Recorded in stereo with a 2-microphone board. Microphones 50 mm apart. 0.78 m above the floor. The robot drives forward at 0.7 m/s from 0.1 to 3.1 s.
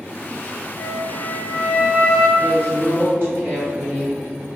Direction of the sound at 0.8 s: 20° left (ahead or behind).